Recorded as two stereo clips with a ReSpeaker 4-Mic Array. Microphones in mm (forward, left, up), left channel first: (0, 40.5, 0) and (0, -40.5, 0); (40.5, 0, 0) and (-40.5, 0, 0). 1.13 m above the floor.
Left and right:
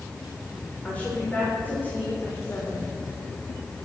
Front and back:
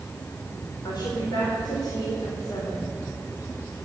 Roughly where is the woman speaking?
Ahead.